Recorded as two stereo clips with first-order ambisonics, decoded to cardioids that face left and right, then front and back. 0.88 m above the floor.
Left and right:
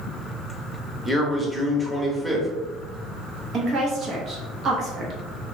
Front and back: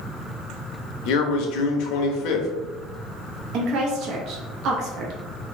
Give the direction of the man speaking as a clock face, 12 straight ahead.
12 o'clock.